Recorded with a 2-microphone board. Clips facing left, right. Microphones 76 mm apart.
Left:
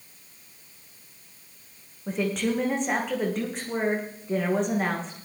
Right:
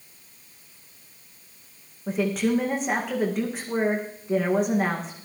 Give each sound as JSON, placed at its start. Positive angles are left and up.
{"t": 2.1, "sound": "a woman speaking", "side_deg": -5, "distance_m": 6.0}